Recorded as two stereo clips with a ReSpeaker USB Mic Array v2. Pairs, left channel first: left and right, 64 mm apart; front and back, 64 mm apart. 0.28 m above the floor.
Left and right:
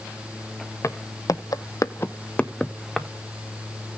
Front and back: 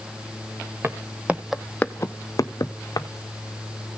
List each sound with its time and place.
0.8 s footsteps: 130° left, 1.1 m; by 3.1 s straight ahead, 1.4 m